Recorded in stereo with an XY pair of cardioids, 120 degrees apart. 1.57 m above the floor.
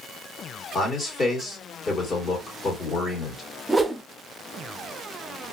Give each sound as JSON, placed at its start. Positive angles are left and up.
{"t": 0.7, "sound": "a man speaking", "azimuth_deg": 40, "distance_m": 1.7}
{"t": 3.7, "sound": "a whoosh", "azimuth_deg": -10, "distance_m": 0.5}